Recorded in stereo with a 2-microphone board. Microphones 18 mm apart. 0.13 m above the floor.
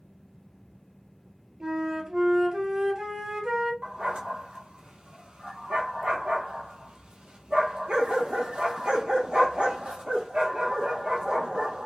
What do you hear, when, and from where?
1.6 s a flute: 40° right (ahead or behind), 1.0 m
3.8 s a dog barking: 65° right (ahead or behind), 0.8 m